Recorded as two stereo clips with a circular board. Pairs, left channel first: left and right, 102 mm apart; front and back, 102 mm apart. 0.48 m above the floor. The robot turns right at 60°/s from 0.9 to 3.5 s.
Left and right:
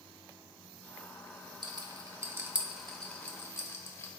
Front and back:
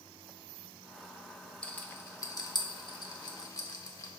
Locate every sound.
1.6 s a rattle: 75° right, 0.6 m; by 4.1 s 40° left, 0.6 m